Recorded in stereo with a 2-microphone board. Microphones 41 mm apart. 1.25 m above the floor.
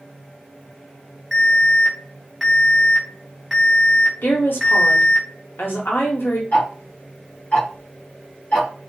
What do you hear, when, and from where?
1.3 s an alarm: 5° left (ahead or behind), 0.8 m
4.2 s a woman speaking: 70° left (ahead or behind), 0.9 m
6.5 s ticking: 50° left (ahead or behind), 1.1 m